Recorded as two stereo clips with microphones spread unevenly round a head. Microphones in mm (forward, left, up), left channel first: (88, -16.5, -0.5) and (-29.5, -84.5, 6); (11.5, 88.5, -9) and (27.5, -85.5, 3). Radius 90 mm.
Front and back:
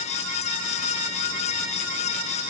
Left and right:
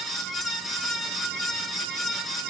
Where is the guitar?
I don't hear a guitar.